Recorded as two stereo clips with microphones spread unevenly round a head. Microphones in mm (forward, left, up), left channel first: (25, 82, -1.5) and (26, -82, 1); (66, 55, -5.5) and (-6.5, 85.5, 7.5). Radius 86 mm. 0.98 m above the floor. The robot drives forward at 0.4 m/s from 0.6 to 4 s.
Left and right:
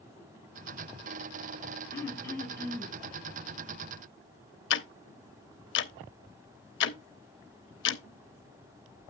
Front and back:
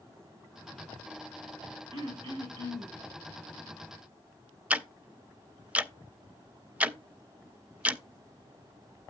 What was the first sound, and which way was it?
Throat clearing, 165° left.